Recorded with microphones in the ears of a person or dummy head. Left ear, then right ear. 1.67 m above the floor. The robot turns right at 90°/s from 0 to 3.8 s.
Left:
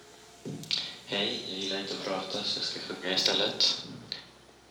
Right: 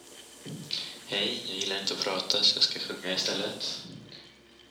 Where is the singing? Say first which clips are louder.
Left 3 dB; 125° left, 1.1 m; by 4.2 s 65° left, 1.1 m.